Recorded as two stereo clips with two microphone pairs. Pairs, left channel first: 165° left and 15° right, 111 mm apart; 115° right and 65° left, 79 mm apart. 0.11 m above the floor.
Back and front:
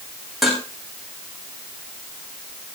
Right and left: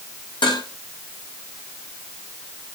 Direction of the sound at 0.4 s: 105° right.